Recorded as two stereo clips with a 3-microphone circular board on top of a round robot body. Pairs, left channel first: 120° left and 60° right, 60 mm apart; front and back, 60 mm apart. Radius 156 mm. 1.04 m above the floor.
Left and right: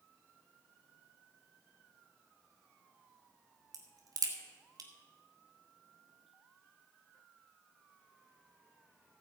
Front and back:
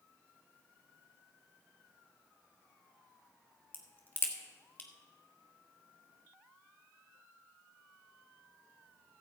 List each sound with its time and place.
3.7 s a crack: 65° right, 1.8 m